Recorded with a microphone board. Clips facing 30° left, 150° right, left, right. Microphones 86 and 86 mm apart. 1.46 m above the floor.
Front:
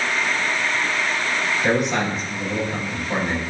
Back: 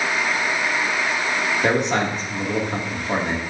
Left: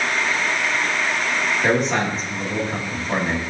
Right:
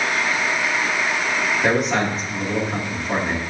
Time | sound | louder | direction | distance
1.6 | a man speaking | even, even | 175° right | 2.5 m